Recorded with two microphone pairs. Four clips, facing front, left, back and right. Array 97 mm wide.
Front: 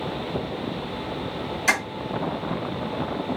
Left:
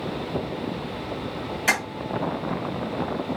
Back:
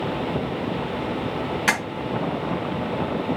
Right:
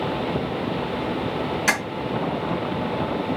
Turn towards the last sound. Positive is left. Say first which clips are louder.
# left 1 dB, even
turn(degrees=-160)